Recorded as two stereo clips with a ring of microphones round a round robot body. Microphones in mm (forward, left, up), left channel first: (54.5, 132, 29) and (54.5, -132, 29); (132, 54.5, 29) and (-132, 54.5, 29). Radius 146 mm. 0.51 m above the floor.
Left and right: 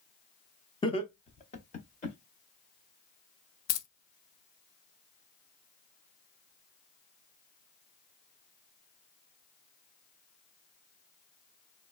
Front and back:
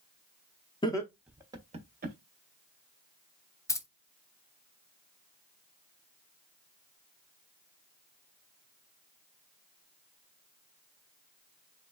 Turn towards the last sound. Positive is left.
turn(degrees=80)